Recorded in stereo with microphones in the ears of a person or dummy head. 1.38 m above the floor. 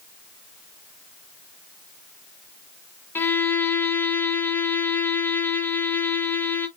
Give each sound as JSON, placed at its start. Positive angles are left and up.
{"t": 3.1, "sound": "a violin", "side_deg": 15, "distance_m": 0.8}